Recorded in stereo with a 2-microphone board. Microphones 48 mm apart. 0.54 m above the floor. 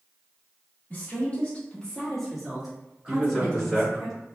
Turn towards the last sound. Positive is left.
turn(degrees=5)  # may be behind; listen again after turning